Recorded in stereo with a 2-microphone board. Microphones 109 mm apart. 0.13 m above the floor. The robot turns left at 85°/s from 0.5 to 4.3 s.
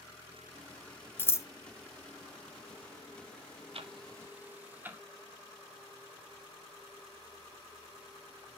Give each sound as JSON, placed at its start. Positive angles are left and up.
{"t": 1.2, "sound": "scissors", "side_deg": 20, "distance_m": 0.6}
{"t": 3.7, "sound": "ticking", "side_deg": -65, "distance_m": 1.0}